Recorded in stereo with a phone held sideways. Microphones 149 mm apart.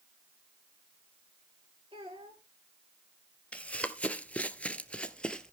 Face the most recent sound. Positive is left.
turn(degrees=5)  # may be behind; listen again after turning